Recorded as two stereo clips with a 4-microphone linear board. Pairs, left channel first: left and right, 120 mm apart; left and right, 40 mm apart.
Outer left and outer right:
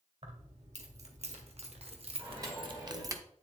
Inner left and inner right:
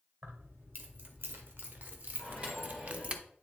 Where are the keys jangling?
70° right (ahead or behind), 1.9 m; by 3.2 s 25° right (ahead or behind), 0.7 m.